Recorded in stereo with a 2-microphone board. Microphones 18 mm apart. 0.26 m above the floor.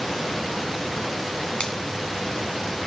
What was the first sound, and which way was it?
A finger snap, 60° left (ahead or behind).